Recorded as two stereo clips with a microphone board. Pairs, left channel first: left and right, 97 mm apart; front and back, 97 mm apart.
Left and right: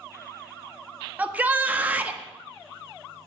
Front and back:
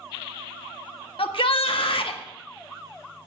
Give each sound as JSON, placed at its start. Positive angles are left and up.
{"t": 1.2, "sound": "a shout", "azimuth_deg": -15, "distance_m": 1.4}